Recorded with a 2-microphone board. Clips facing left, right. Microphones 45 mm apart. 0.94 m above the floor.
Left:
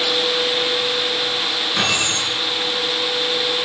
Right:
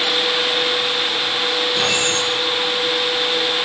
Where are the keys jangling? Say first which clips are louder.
Right 1 dB; 55° left (ahead or behind), 9 m.